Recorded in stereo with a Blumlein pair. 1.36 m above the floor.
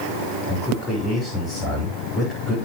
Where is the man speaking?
20° left, 5.5 m.